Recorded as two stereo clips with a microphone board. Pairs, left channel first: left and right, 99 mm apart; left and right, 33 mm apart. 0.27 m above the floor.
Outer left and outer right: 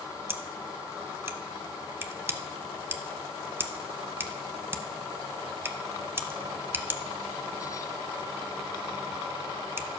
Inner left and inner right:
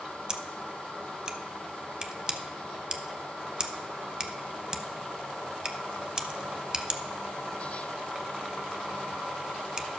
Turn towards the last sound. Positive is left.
turn(degrees=-25)  # may be behind; listen again after turning